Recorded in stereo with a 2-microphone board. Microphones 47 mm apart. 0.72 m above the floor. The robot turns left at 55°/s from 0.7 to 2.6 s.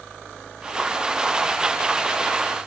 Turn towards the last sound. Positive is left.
No sound to turn to.